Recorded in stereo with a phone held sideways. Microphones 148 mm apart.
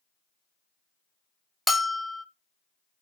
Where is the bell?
Centre (ahead or behind), 0.6 m.